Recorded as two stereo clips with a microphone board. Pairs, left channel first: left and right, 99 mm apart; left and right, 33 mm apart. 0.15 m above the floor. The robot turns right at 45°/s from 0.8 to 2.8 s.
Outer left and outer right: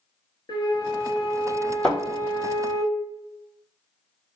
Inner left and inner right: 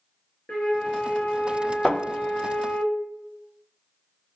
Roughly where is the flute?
Ahead left.